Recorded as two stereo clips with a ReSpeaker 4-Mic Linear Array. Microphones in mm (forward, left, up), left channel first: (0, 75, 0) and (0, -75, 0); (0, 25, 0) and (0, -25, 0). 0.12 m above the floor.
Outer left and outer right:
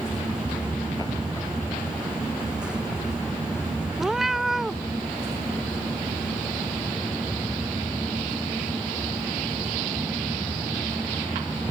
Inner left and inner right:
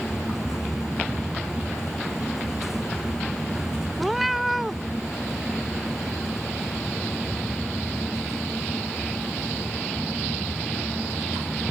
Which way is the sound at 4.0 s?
Centre (ahead or behind).